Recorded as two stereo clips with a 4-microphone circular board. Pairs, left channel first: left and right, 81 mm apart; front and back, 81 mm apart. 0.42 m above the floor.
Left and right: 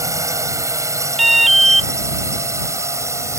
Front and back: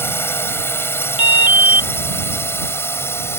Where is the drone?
55° right; by 3.4 s 50° right.